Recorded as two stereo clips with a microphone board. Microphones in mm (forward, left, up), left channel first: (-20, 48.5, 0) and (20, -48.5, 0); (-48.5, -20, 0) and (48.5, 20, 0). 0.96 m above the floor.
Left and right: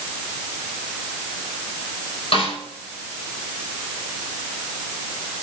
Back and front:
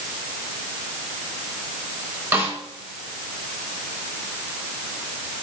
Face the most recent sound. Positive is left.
turn(degrees=90)